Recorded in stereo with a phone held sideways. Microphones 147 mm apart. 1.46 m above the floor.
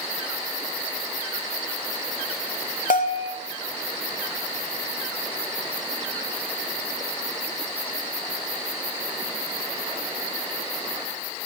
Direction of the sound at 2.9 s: 70° left (ahead or behind).